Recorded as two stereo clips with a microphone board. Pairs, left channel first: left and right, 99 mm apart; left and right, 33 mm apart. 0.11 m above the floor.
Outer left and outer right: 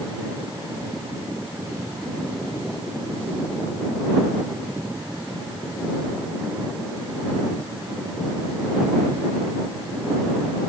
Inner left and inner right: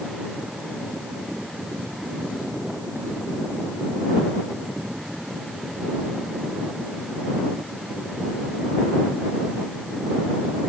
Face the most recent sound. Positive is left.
No sound to turn to.